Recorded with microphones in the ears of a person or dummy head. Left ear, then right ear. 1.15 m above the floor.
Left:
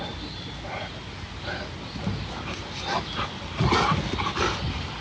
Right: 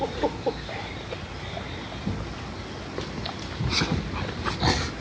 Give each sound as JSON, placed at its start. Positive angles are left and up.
{"t": 2.0, "sound": "a thud", "side_deg": 70, "distance_m": 2.5}